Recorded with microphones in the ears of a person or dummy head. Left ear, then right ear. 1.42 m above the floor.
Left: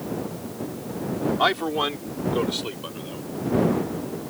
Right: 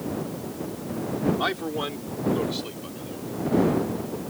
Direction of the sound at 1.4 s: 30° left (ahead or behind).